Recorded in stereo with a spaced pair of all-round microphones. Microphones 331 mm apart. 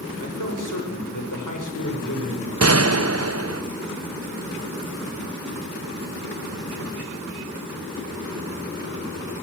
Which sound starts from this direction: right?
A gunshot, at 2.6 s.